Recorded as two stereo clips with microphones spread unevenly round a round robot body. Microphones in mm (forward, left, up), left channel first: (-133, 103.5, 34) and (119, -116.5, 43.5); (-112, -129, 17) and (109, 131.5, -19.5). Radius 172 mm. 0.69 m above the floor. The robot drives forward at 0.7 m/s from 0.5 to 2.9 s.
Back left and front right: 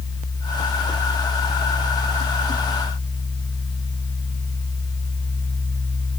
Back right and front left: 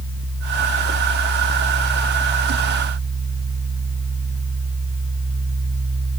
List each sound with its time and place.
Only background noise.